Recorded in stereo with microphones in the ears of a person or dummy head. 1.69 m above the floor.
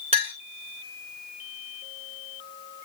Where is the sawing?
I don't hear sawing.